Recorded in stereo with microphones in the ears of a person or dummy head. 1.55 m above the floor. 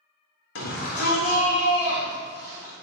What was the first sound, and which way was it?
A shout, 75° left (ahead or behind).